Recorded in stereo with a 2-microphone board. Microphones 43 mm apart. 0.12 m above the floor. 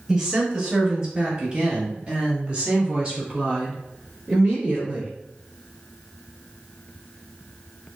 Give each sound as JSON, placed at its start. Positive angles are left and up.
{"t": 0.1, "sound": "a woman speaking", "side_deg": -15, "distance_m": 1.6}